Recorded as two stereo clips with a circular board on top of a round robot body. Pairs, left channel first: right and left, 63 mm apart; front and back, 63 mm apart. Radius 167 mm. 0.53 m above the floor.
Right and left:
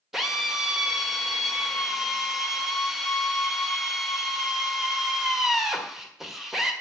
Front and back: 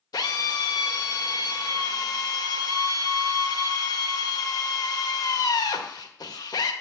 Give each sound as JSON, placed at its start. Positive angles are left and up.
{"t": 0.1, "sound": "a drill", "azimuth_deg": 5, "distance_m": 1.8}